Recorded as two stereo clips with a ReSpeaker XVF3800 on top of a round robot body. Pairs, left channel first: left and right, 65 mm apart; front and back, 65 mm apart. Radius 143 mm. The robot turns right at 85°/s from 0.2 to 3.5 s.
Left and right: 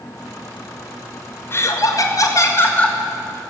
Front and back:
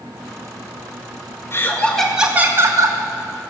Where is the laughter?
45° left, 1.8 m; by 3.0 s 170° left, 1.8 m.